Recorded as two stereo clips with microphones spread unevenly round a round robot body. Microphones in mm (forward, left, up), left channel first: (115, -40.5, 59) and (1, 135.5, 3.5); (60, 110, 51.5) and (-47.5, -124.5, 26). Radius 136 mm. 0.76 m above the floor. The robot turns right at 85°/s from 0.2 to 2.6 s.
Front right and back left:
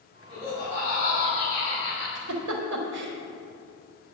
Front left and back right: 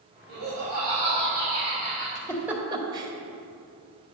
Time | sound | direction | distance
0.3 | laughter | 160° right | 4 m
2.1 | a giggle | 130° left | 1.4 m